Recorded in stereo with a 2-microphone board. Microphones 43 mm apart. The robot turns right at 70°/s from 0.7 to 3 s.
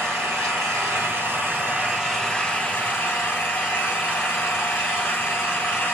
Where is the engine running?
110° right, 3.5 m; by 6.0 s 55° left, 3.5 m.